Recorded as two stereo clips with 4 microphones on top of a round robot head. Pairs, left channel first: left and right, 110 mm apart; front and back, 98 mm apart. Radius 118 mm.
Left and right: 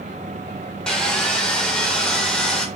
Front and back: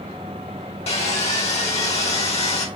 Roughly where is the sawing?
Ahead.